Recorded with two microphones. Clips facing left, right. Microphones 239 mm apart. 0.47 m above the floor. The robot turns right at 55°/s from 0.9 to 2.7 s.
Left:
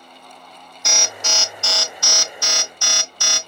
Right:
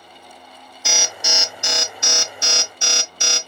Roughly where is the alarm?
Centre.